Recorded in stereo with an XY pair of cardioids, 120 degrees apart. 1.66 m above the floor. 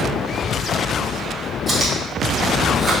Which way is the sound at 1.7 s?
15° right.